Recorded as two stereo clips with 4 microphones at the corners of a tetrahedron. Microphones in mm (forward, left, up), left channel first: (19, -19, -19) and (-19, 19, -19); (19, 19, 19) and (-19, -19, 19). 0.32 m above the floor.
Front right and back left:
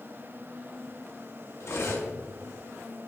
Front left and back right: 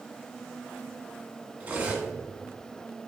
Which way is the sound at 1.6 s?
75° right.